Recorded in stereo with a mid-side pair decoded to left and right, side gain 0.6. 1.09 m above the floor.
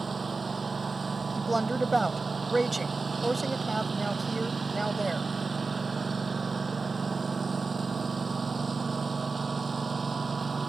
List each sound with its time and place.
0.0 s a lawn mower: 25° right
1.4 s a woman speaking: 15° right